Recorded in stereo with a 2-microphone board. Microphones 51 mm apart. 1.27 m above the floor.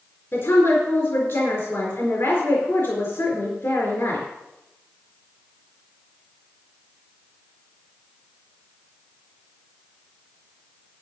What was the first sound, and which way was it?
A woman speaking, 60° left (ahead or behind).